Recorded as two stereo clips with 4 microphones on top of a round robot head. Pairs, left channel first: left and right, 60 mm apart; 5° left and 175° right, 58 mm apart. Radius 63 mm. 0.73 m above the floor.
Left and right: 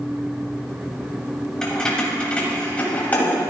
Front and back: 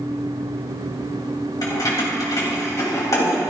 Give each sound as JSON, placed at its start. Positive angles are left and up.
{"t": 1.6, "sound": "keys jangling", "azimuth_deg": 10, "distance_m": 3.5}